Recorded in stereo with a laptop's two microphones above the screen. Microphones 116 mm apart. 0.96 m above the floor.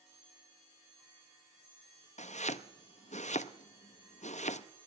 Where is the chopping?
85° left, 0.5 m.